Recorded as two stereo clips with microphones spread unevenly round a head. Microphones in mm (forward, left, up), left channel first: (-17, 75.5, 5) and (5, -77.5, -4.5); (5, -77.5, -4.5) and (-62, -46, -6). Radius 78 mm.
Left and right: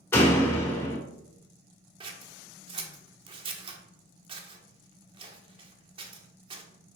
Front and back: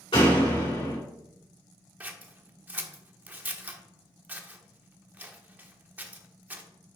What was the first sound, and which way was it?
A door slam, 25° left.